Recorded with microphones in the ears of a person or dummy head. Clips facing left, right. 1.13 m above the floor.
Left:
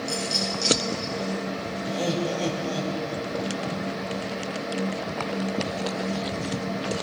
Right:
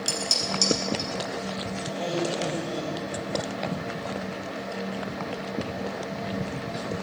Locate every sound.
0.1 s dishes clattering: 80° right, 5 m
1.9 s laughter: 45° left (ahead or behind), 5 m